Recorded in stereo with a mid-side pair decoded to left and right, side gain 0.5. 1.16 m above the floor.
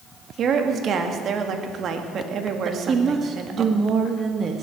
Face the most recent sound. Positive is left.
turn(degrees=-40)